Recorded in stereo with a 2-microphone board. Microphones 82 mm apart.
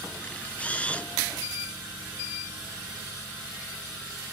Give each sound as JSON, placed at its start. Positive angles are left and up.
{"t": 0.2, "sound": "a camera shutter", "side_deg": 15, "distance_m": 1.1}